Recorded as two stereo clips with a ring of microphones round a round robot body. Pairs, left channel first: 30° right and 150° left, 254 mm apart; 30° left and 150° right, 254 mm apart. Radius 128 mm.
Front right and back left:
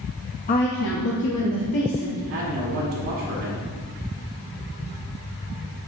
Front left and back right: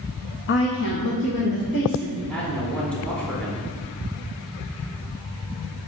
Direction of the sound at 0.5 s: 20° left.